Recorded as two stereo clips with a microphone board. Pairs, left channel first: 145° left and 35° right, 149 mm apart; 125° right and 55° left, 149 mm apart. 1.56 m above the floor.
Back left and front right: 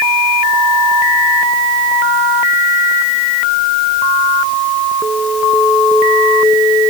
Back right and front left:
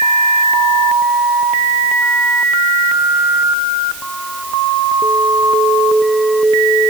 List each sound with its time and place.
Only background noise.